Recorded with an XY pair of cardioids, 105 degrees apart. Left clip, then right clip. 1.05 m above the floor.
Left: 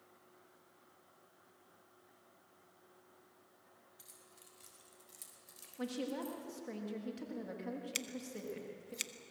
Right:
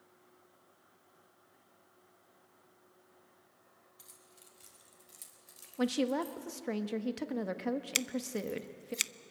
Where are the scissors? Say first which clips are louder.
Right 8 dB; 50° right, 0.6 m.